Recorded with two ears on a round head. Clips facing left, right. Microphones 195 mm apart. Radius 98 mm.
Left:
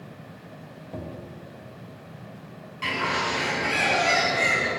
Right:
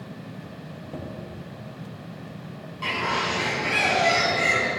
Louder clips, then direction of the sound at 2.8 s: Even; 25° left (ahead or behind).